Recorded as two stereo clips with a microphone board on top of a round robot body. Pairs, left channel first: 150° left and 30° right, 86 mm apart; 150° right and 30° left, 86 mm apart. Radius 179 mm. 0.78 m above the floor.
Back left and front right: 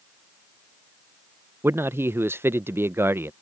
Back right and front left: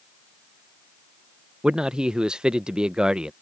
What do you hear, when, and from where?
1.6 s a man speaking: 40° right